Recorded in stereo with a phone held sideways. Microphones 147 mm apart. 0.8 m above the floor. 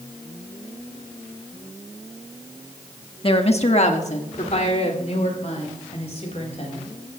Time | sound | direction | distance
3.2 | a woman speaking | 40° left (ahead or behind) | 1.1 m